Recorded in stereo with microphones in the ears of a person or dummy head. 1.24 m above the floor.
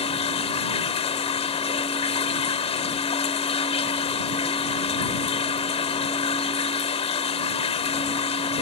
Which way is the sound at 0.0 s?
25° left (ahead or behind).